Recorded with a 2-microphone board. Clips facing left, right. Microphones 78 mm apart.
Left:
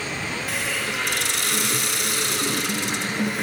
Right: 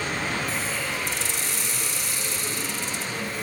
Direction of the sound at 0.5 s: 70° left (ahead or behind).